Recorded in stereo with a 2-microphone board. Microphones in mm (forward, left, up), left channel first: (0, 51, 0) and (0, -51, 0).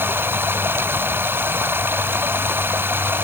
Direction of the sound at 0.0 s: 20° right (ahead or behind).